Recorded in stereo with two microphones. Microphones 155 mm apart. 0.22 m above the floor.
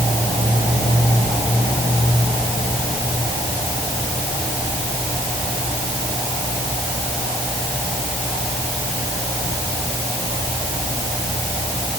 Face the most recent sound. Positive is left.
No sound to turn to.